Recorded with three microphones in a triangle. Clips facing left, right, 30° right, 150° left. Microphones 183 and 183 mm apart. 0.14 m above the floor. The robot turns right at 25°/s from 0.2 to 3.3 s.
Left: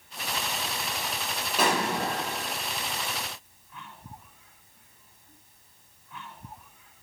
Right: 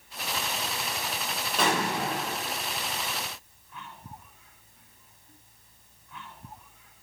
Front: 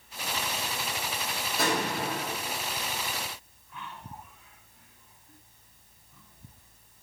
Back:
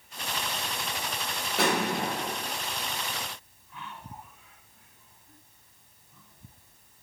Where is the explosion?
175° left, 4 m; by 2.6 s 160° right, 4 m.